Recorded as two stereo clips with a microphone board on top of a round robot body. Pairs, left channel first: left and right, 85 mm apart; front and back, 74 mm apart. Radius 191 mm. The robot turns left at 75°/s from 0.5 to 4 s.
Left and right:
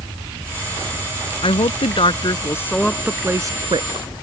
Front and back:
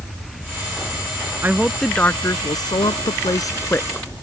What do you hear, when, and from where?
1.4 s a woman speaking: 115° left; by 4.1 s 80° right